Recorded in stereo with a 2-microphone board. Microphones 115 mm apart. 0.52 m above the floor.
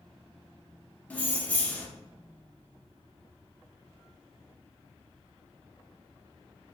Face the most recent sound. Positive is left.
turn(degrees=10)  # may be behind; listen again after turning